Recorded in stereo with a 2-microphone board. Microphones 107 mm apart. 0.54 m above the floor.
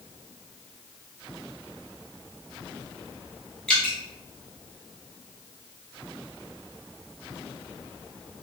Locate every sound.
3.7 s dripping: 10° left (ahead or behind), 1.0 m